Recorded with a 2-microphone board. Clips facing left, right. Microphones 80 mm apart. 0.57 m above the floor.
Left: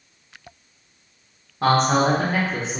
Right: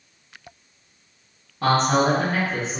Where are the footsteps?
I don't hear footsteps.